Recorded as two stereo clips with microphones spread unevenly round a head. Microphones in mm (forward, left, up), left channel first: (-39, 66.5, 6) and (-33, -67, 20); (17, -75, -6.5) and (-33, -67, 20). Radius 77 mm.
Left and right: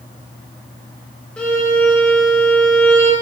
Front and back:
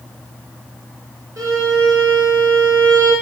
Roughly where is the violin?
Behind.